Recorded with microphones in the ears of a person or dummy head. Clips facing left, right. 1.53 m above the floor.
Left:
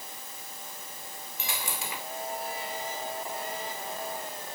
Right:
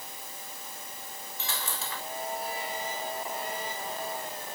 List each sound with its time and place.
1.4 s a dropped coin: 10° left (ahead or behind), 1.4 m